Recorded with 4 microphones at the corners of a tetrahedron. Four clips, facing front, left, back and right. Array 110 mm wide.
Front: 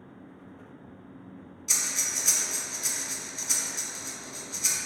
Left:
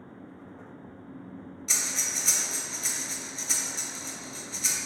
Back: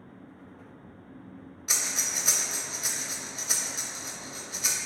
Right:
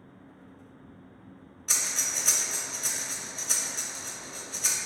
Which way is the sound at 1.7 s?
160° right.